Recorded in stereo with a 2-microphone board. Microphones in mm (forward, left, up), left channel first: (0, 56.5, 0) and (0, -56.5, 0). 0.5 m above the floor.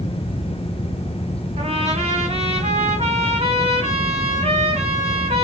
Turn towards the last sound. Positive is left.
turn(degrees=-70)  # may be behind; listen again after turning